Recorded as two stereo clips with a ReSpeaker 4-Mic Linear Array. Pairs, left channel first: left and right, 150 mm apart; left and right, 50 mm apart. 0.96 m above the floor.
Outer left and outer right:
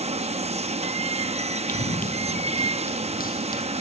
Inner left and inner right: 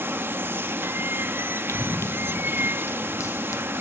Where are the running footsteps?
60° left (ahead or behind), 2.0 m; by 3.7 s 70° left (ahead or behind), 3 m.